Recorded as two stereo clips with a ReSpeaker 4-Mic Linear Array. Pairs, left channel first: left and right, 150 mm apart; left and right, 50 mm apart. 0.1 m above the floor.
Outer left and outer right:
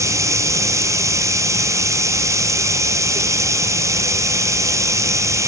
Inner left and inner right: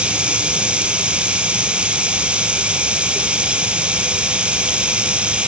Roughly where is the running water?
Centre.